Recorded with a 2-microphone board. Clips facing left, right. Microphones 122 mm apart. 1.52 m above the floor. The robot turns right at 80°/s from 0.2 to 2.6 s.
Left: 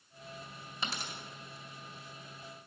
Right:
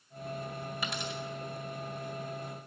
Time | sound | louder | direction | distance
0.8 | a dropped coin | right 1 dB | 25° left (ahead or behind) | 1.8 m